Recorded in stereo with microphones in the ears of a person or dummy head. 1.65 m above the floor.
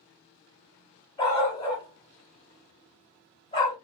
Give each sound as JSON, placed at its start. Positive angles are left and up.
{"t": 1.2, "sound": "a dog barking", "side_deg": 25, "distance_m": 2.5}